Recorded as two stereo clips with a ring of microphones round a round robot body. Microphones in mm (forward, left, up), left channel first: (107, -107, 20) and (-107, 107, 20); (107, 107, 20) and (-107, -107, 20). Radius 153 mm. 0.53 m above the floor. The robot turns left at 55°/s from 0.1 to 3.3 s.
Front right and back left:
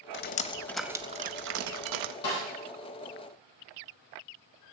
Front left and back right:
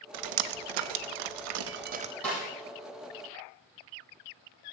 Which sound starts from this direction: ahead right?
A snare drum, at 2.2 s.